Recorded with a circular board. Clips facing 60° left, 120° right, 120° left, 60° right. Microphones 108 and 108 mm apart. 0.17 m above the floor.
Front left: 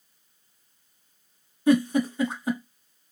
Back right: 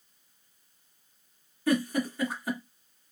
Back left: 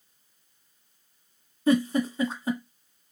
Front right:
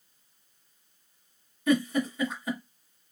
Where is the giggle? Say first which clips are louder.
Front left 6 dB, back left 2 dB; 105° left, 1.2 m.